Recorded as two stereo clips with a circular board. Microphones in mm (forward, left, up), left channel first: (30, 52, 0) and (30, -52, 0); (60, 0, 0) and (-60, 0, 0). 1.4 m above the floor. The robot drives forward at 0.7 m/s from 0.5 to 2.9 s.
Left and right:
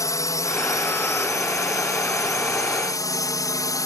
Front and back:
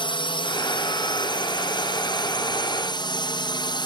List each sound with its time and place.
0.0 s a drone: 40° left